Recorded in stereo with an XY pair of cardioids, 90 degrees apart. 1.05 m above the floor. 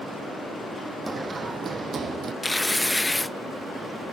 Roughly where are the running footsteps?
Ahead right.